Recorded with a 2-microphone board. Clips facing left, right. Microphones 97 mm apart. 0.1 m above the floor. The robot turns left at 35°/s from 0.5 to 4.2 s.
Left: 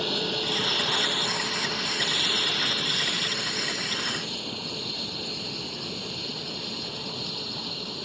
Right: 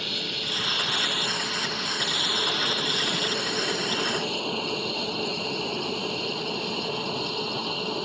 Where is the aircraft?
40° left (ahead or behind); by 8.1 s 65° right (ahead or behind).